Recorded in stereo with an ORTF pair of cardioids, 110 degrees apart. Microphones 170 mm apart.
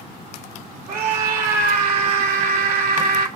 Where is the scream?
60° right, 2.5 m.